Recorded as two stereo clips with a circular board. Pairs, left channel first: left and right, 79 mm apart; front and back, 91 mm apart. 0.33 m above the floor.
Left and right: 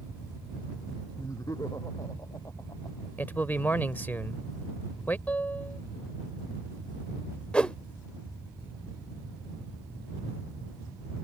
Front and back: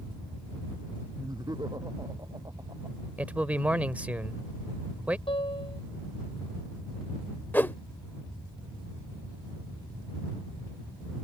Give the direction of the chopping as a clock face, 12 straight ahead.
I don't hear chopping.